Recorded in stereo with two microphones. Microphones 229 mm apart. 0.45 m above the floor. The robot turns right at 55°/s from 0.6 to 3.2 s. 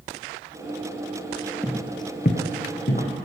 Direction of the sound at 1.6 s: Centre (ahead or behind).